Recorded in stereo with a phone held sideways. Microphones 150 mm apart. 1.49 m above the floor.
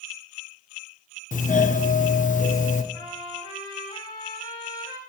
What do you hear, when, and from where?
1.3 s a doorbell: 60° left (ahead or behind), 0.6 m
2.9 s a trumpet: 30° left (ahead or behind), 2 m